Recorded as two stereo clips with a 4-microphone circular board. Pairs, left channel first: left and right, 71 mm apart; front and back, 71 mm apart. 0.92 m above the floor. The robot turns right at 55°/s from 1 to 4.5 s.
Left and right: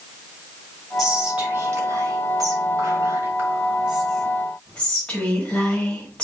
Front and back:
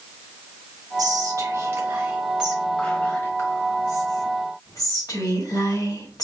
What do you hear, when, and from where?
1.0 s whispering: 175° right, 2 m; by 6.2 s 15° left, 2 m